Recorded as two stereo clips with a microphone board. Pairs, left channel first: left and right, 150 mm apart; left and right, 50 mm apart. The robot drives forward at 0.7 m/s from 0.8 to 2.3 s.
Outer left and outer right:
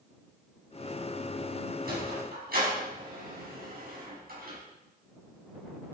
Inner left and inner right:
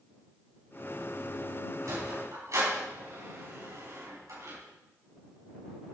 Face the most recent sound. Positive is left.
turn(degrees=-70)  # may be behind; listen again after turning